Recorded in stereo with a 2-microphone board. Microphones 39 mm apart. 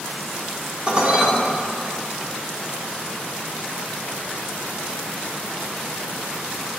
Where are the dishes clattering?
30° right (ahead or behind), 2 m.